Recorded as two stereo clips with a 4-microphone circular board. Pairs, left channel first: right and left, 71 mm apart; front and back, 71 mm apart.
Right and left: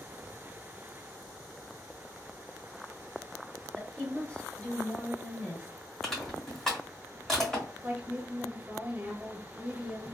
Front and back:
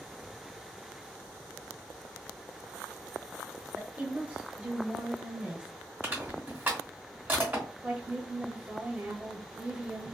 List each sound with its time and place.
3.8 s a woman speaking: 130° right, 1.0 m
6.0 s crushing: 165° right, 1.3 m
7.8 s a woman speaking: 140° left, 1.2 m